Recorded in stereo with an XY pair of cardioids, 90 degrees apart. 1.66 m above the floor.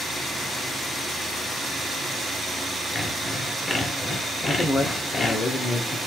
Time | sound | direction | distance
3.0 | sawing | 40° left | 1.2 m
4.5 | a man speaking | 45° left | 1.7 m